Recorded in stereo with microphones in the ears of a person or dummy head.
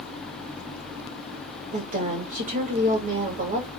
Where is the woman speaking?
45° right (ahead or behind), 1.9 m.